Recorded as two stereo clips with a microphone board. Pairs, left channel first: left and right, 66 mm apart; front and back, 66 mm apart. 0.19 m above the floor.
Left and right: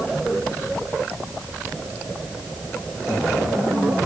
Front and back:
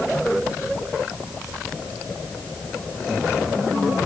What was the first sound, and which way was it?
Only background noise.